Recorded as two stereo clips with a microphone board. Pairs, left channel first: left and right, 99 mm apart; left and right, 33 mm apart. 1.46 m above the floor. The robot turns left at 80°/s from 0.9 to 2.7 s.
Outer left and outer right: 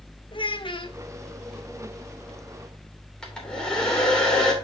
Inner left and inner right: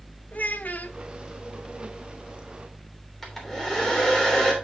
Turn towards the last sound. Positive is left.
turn(degrees=10)  # may be behind; listen again after turning